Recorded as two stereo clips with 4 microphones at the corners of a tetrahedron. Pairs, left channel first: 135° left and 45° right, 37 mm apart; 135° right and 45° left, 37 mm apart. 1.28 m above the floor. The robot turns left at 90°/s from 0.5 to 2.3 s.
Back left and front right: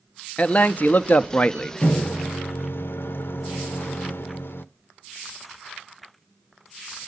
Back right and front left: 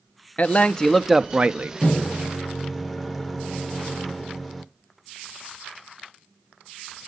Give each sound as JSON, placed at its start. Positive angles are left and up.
{"t": 0.4, "sound": "a man speaking", "azimuth_deg": -175, "distance_m": 0.5}
{"t": 1.8, "sound": "a microwave", "azimuth_deg": 175, "distance_m": 0.6}